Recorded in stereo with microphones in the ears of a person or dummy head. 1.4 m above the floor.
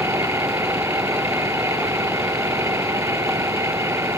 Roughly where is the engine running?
Centre.